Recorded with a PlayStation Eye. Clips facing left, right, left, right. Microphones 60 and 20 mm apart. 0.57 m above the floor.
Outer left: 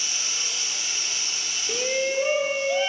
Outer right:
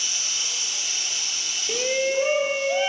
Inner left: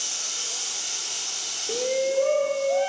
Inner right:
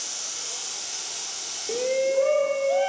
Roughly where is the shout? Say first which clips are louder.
Outer right 2 dB, inner right 1 dB; centre.